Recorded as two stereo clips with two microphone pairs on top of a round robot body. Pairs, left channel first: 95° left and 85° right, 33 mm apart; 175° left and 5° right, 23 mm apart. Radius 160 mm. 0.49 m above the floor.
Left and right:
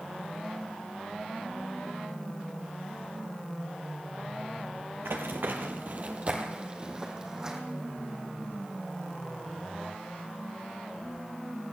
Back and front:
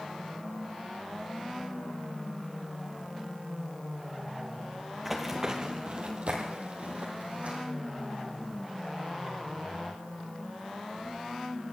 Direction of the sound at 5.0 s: 80° right.